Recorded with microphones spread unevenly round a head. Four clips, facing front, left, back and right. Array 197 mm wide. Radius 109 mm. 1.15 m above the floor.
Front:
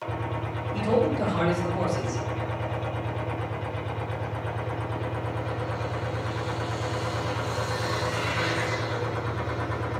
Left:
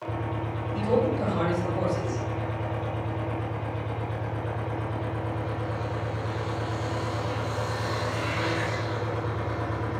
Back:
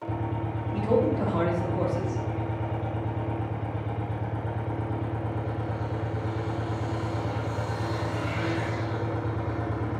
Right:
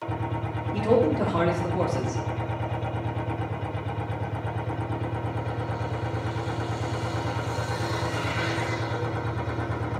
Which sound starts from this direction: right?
A man speaking, at 0.7 s.